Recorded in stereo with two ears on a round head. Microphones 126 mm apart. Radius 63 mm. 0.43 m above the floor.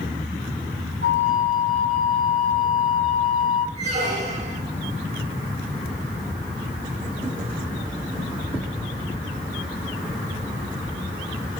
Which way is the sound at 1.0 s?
60° right (ahead or behind).